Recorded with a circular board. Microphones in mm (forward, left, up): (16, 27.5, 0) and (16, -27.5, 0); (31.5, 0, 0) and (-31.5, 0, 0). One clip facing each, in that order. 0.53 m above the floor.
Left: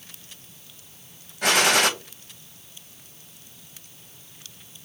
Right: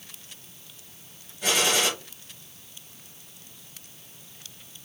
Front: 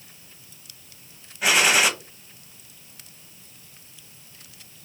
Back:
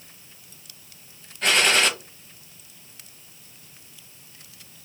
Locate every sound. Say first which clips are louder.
1.4 s a gunshot: left 5 dB, front 1 dB; 80° left, 0.6 m